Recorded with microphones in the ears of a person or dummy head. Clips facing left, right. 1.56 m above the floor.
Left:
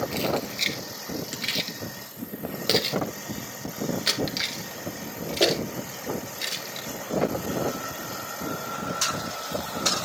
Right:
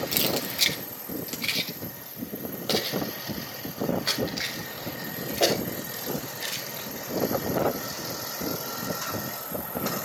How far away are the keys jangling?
About 1.2 m.